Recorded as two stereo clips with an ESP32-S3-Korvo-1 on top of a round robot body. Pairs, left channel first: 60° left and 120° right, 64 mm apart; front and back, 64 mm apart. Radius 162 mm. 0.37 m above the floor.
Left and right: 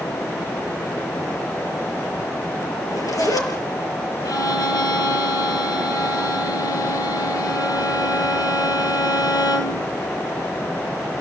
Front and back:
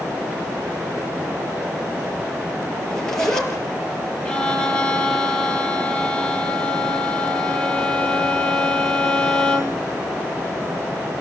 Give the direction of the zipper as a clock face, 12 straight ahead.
9 o'clock.